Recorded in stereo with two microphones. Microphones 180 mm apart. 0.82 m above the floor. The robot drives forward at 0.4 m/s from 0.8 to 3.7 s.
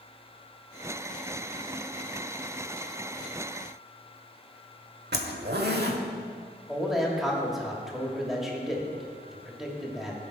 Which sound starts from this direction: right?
A zipper, at 5.1 s.